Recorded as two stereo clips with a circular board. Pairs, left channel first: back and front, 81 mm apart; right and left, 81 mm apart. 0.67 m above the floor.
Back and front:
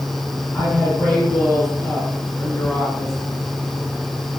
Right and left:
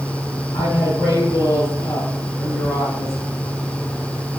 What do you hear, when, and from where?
0.5 s a woman speaking: 110° right, 5.5 m